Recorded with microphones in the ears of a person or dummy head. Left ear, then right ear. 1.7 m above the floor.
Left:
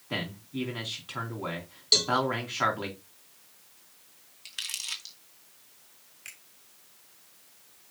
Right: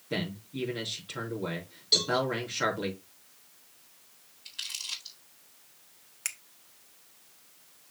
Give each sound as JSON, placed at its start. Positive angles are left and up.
{"t": 0.1, "sound": "a man speaking", "side_deg": 35, "distance_m": 4.0}
{"t": 1.9, "sound": "a cowbell", "side_deg": 25, "distance_m": 1.6}
{"t": 4.5, "sound": "crumpling", "side_deg": 50, "distance_m": 2.0}
{"t": 6.2, "sound": "a finger snap", "side_deg": -60, "distance_m": 1.2}